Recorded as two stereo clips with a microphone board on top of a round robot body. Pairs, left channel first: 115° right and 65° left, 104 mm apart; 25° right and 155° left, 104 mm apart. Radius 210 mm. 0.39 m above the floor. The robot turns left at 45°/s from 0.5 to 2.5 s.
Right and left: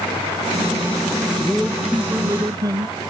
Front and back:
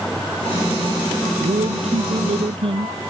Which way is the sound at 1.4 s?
170° left.